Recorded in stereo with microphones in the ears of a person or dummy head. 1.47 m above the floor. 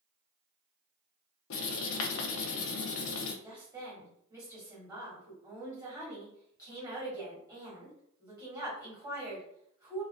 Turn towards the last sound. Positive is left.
turn(degrees=-20)  # may be behind; listen again after turning